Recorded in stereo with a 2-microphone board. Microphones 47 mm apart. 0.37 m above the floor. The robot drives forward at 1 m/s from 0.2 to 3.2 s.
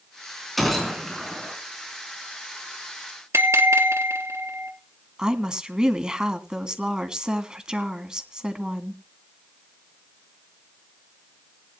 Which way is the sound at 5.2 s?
15° right (ahead or behind).